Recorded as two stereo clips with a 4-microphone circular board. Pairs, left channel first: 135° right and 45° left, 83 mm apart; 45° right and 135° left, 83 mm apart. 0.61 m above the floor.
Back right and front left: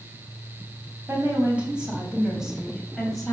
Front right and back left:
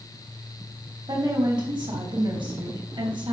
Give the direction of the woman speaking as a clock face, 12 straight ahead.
8 o'clock.